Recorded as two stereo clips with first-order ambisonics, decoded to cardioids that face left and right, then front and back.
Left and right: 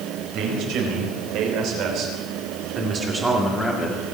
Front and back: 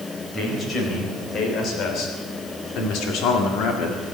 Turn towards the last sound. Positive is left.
turn(degrees=20)